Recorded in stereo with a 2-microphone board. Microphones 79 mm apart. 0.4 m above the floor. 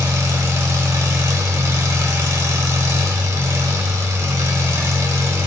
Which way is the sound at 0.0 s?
40° right (ahead or behind).